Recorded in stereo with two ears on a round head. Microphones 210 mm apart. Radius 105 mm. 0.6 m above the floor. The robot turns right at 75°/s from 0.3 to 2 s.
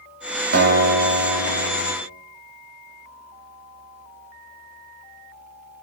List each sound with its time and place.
0.5 s a guitar: 55° right, 2.5 m; by 1.9 s 50° left, 2.5 m